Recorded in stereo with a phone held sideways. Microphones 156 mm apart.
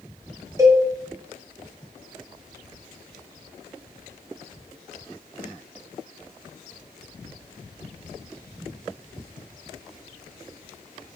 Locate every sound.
0.6 s a cowbell: 20° right (ahead or behind), 0.5 m